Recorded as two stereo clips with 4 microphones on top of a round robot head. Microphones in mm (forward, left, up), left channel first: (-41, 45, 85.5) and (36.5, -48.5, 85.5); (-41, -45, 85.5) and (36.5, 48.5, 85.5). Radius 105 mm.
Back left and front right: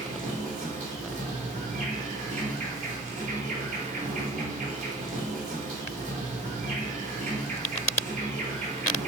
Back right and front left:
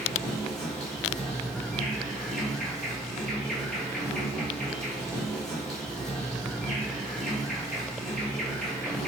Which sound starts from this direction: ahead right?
An insect, at 0.0 s.